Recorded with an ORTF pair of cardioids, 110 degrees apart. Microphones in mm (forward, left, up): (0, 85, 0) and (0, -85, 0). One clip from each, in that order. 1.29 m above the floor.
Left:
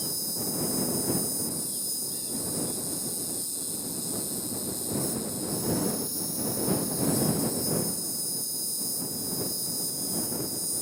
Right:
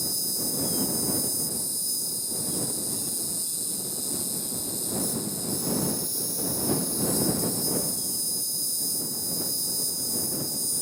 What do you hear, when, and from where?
0.0 s an insect: 20° right